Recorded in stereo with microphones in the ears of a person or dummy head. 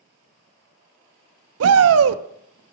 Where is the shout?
70° right (ahead or behind), 0.6 m.